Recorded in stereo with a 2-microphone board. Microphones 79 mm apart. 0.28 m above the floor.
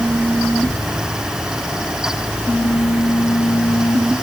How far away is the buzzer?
I don't hear a buzzer.